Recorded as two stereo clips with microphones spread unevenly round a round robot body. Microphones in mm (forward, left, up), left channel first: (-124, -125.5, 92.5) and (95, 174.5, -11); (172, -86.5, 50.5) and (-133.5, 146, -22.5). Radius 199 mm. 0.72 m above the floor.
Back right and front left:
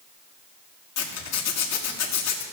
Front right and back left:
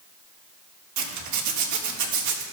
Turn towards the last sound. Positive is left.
turn(degrees=180)